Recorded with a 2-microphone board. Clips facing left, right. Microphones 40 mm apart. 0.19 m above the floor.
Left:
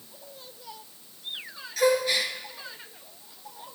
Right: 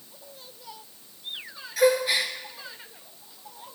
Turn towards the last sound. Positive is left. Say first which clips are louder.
# right 2 dB
turn(degrees=-10)  # may be behind; listen again after turning